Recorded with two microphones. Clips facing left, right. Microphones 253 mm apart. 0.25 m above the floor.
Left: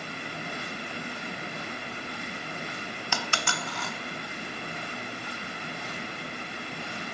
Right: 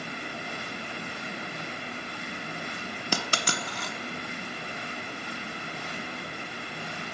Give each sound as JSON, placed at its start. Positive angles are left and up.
{"t": 3.1, "sound": "a dropped coin", "side_deg": -40, "distance_m": 0.6}